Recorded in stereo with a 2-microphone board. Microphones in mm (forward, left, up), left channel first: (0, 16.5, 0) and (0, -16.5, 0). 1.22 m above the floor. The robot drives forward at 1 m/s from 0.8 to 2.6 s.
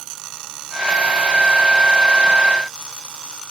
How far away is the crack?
No crack in this recording.